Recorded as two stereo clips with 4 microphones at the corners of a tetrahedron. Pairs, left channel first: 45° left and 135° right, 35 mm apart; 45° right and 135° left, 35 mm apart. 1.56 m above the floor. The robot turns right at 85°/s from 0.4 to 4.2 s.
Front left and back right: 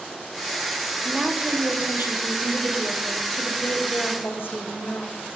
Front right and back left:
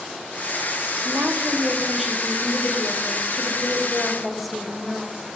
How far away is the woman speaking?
About 1.4 m.